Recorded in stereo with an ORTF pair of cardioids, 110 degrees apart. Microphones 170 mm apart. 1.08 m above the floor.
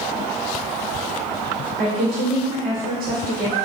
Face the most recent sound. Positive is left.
turn(degrees=-55)